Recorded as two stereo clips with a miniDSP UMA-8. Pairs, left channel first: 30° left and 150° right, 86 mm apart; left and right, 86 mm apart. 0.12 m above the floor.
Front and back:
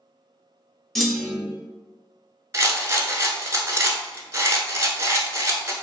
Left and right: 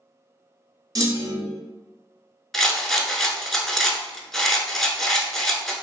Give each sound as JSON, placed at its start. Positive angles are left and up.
{"t": 0.9, "sound": "a clunk", "azimuth_deg": -55, "distance_m": 0.6}
{"t": 2.5, "sound": "a rattle", "azimuth_deg": 175, "distance_m": 0.6}